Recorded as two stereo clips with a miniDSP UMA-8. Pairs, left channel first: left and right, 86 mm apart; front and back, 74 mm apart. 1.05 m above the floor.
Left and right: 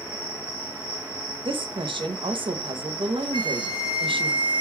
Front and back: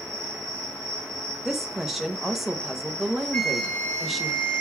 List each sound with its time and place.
0.0 s an insect: 75° right, 2 m
1.4 s a woman speaking: 90° right, 0.7 m
3.3 s a flute: 75° left, 1.0 m